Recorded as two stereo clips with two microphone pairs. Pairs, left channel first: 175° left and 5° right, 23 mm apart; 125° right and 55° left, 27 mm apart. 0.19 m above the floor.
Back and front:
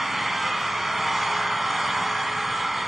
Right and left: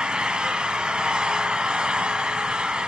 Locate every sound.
0.0 s an engine running: 70° left, 1.5 m